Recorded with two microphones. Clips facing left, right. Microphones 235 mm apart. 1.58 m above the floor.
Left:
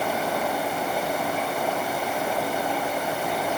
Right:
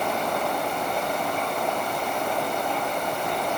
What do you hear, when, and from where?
Only background noise.